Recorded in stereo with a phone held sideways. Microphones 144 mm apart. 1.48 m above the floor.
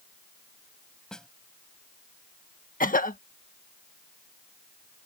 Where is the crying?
I don't hear crying.